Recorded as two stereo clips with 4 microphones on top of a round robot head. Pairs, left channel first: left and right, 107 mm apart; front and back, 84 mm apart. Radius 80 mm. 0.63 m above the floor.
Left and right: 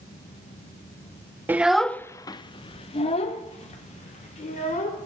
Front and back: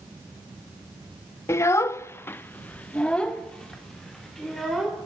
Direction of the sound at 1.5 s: 30° right.